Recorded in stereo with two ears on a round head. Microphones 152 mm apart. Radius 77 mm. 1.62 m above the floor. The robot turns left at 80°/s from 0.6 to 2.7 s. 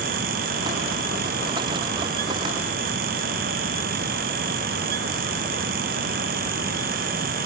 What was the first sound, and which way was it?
Only background noise.